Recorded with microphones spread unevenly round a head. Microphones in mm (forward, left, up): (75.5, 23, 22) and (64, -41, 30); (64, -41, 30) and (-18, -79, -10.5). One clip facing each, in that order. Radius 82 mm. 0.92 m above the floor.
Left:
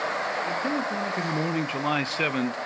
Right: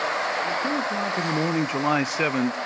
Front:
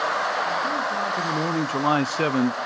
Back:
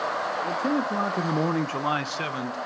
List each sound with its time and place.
0.4 s a man speaking: 175° left, 1.8 m; by 2.6 s 15° right, 1.2 m